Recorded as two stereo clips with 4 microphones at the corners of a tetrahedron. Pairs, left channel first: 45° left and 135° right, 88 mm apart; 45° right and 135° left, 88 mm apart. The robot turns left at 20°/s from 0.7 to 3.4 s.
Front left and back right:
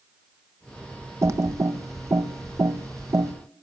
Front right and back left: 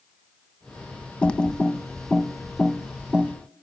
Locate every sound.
1.2 s typing on a keyboard: 115° right, 0.7 m; by 3.3 s 155° right, 0.7 m